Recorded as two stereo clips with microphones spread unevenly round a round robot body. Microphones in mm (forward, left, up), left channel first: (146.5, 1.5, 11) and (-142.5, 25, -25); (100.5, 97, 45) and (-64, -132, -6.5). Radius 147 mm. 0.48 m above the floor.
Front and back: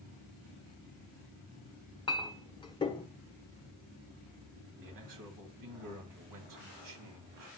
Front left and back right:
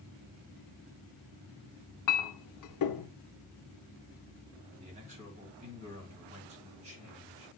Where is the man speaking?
170° left, 3 m.